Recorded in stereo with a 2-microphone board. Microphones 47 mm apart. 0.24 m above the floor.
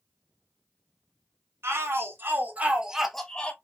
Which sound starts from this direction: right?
A shout, at 1.6 s.